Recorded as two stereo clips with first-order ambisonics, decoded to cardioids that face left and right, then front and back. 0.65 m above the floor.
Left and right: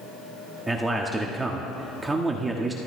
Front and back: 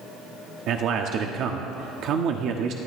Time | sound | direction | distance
0.7 | a man speaking | 165° right | 1.2 m